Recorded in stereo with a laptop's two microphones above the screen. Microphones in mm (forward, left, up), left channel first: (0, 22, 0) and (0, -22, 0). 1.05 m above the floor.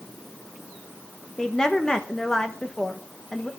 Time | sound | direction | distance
1.4 | a woman speaking | 15° left (ahead or behind) | 1.0 m